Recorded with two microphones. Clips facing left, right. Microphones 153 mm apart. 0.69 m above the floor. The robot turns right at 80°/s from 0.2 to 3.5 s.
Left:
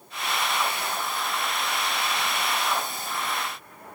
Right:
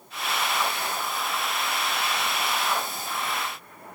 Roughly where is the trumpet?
No trumpet in this recording.